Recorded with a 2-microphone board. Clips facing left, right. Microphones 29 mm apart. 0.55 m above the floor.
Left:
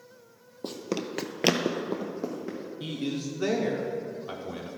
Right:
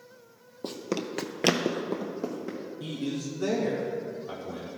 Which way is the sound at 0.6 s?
Centre (ahead or behind).